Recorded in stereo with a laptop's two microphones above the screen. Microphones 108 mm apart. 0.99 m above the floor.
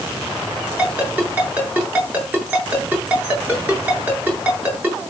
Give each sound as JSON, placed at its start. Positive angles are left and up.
{"t": 0.8, "sound": "a ringtone", "side_deg": -15, "distance_m": 8.5}